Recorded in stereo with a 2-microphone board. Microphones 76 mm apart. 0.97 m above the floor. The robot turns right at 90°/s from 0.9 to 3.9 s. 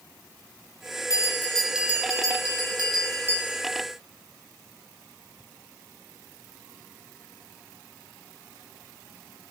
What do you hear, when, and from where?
1.1 s a bell: 130° left, 5 m; by 3.6 s straight ahead, 5 m